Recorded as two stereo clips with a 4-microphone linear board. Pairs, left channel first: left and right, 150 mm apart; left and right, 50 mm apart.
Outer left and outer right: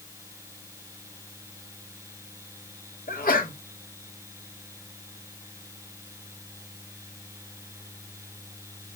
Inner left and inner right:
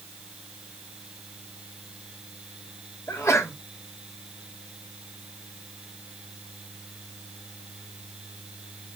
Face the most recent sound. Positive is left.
turn(degrees=80)